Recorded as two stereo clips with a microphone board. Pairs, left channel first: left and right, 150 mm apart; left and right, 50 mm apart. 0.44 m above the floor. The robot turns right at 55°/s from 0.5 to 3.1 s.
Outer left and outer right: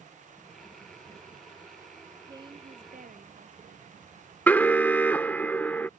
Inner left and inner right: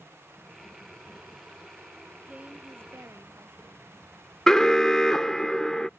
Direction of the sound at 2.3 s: 155° right.